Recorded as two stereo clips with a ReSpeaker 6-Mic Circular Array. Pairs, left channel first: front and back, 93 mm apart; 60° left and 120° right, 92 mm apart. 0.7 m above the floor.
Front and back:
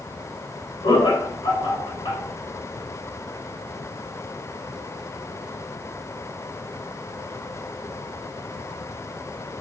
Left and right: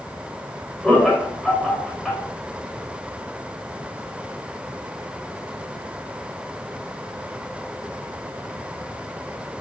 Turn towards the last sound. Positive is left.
turn(degrees=-25)